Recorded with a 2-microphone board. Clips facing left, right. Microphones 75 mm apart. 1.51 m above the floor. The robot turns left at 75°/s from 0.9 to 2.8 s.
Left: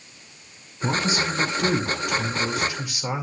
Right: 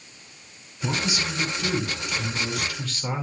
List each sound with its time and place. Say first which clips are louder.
0.8 s a man speaking: left 4 dB; 160° left, 2.0 m; by 3.2 s 15° left, 2.0 m